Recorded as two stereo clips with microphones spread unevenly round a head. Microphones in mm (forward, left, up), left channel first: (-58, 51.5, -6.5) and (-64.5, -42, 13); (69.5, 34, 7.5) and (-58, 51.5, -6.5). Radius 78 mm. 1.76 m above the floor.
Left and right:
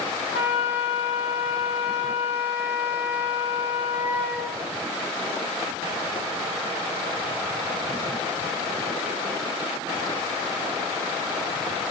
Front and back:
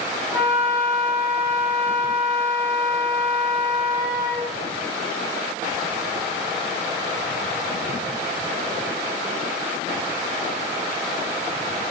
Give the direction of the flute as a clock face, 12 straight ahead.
9 o'clock.